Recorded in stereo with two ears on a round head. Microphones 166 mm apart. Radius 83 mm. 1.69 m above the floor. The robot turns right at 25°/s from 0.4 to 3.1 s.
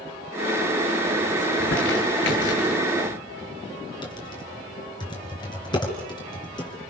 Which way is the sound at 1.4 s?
65° left (ahead or behind).